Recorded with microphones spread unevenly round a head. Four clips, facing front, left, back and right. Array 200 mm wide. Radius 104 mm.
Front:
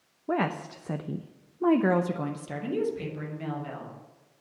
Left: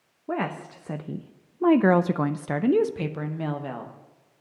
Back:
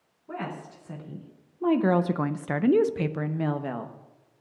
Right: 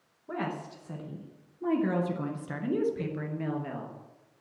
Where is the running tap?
I don't hear a running tap.